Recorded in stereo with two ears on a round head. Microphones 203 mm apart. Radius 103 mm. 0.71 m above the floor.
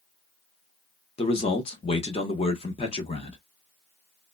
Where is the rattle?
No rattle in this recording.